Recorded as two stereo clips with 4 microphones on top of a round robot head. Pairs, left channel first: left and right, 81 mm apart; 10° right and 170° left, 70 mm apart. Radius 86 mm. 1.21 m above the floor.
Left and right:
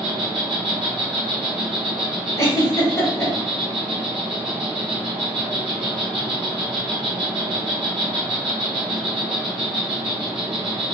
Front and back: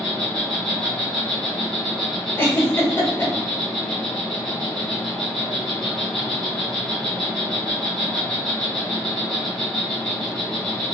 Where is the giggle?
40° left, 1.6 m.